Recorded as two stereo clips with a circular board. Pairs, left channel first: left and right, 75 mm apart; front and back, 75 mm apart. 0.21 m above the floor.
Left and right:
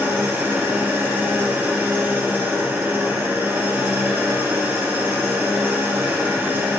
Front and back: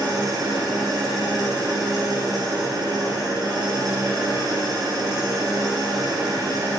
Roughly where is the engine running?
Behind right.